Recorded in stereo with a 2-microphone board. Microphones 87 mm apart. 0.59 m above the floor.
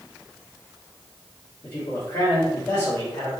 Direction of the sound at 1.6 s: 40° left (ahead or behind).